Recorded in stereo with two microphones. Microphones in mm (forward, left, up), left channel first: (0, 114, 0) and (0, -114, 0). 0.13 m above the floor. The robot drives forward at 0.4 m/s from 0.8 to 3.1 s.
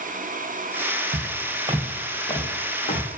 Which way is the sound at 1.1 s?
55° right (ahead or behind).